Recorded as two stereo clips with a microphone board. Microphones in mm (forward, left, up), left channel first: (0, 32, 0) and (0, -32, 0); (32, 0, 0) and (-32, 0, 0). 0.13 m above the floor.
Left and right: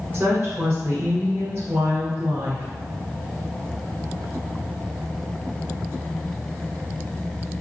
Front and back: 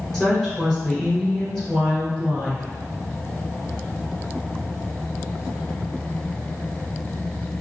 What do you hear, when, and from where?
0.1 s a woman speaking: 100° right, 1.3 m